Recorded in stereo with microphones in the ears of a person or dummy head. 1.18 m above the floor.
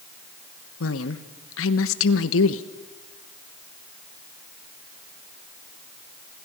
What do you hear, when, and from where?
0.8 s a woman speaking: 70° left (ahead or behind), 1.1 m